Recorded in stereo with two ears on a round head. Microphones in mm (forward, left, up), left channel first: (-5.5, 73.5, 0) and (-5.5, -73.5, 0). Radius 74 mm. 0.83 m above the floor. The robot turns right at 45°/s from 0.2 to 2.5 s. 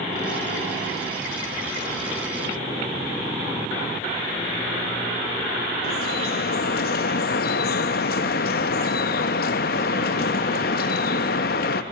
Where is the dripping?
60° left (ahead or behind), 0.7 m.